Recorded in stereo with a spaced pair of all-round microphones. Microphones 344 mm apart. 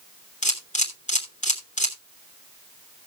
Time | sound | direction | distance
0.4 | a camera shutter | 20° left (ahead or behind) | 2 m